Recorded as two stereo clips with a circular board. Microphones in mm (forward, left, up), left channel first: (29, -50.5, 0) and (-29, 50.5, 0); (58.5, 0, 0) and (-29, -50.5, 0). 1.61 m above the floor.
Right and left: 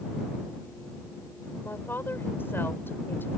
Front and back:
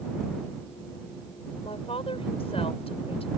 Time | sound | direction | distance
1.6 | a woman speaking | 10° left | ?